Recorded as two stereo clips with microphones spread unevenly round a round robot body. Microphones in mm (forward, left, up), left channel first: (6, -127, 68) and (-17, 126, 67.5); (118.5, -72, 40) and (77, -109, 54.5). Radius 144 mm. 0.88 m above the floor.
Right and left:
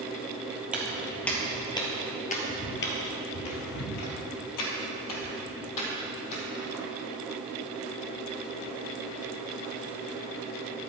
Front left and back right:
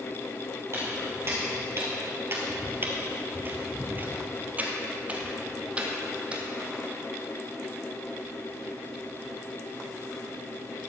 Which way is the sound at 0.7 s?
Straight behind.